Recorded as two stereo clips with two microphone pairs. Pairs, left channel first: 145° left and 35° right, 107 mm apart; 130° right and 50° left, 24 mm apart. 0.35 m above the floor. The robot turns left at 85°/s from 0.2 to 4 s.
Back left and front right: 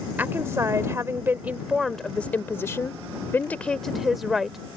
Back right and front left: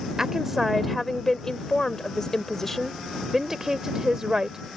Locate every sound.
0.2 s a woman speaking: 15° left; by 4.6 s 55° left